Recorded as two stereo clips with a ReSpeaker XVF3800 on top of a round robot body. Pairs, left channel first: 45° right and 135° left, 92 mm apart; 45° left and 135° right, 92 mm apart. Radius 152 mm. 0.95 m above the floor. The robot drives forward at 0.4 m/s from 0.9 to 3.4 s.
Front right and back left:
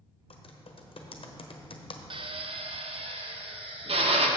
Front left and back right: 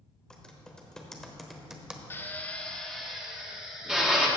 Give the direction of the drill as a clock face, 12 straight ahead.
8 o'clock.